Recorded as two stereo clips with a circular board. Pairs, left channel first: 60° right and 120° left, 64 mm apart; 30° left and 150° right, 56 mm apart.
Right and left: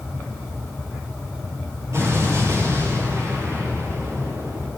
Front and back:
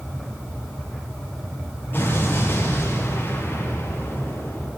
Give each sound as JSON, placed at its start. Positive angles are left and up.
{"t": 1.9, "sound": "an explosion", "azimuth_deg": 80, "distance_m": 6.5}